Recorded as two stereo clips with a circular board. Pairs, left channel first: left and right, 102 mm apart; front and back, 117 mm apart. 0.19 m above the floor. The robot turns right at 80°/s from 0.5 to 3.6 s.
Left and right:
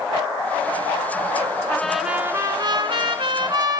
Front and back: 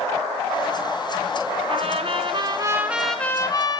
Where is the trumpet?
160° left, 1.1 m; by 3.8 s 45° right, 1.1 m.